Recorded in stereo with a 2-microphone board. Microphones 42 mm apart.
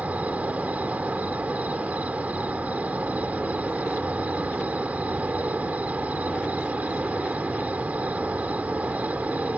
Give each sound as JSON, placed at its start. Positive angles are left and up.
{"t": 0.0, "sound": "an insect", "side_deg": -40}